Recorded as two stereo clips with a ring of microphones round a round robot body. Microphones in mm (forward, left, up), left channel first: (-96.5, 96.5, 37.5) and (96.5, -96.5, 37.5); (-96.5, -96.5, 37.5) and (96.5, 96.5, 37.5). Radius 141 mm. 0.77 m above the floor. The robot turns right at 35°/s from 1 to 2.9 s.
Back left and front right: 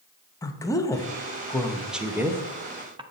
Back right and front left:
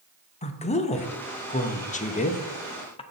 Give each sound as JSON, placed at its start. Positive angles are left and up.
{"t": 0.4, "sound": "a woman speaking", "azimuth_deg": -160, "distance_m": 0.7}